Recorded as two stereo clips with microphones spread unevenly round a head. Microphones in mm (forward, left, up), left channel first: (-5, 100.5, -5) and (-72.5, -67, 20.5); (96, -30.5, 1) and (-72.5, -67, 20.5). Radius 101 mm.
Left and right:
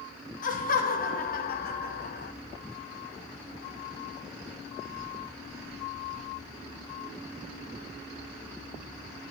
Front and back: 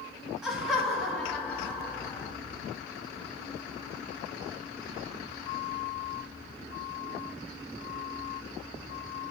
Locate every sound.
0.4 s laughter: 105° left, 2.5 m; by 2.3 s 85° left, 1.5 m